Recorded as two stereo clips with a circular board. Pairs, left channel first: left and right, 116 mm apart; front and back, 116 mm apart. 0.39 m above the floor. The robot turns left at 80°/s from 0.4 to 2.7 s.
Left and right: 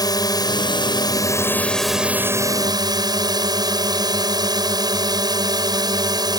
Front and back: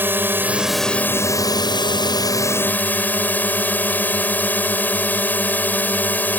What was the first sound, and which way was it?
A drone, 120° left.